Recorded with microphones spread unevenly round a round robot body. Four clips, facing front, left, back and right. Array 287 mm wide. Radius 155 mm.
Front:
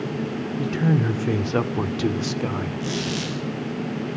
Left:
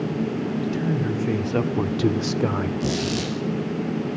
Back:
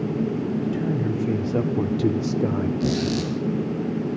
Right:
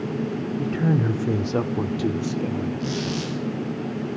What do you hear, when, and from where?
0.6 s a man speaking: 45° right, 1.7 m; by 2.7 s 120° left, 1.8 m
2.8 s a squeak: 155° left, 2.5 m